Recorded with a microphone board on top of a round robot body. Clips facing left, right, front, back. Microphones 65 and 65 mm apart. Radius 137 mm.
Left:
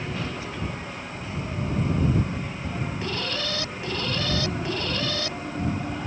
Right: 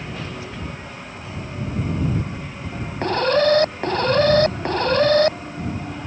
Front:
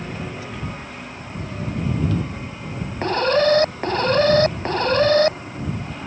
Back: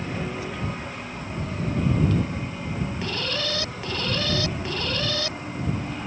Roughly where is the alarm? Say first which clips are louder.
Right 18 dB, front 17 dB; ahead right.